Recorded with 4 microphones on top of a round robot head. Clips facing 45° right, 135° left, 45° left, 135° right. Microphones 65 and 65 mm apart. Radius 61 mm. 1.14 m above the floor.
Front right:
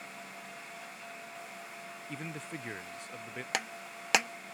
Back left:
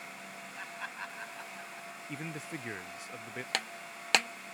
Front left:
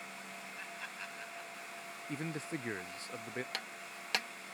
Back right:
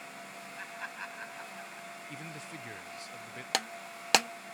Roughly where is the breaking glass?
Behind right.